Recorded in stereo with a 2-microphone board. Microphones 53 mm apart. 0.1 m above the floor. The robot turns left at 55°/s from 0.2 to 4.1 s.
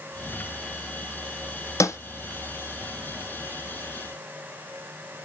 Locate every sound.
1.8 s a snare drum: 80° left, 0.7 m; by 2.0 s 75° left (ahead or behind), 0.7 m